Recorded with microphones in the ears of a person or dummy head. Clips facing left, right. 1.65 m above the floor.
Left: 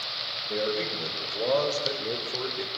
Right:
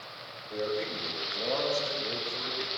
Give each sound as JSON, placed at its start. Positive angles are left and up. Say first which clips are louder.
{"t": 0.5, "sound": "a man speaking", "louder": "left 3 dB", "side_deg": 85, "distance_m": 6.5}